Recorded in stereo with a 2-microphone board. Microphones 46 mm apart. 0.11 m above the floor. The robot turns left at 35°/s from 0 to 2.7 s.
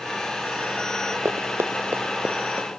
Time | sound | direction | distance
1.2 | running footsteps | 90° right | 0.7 m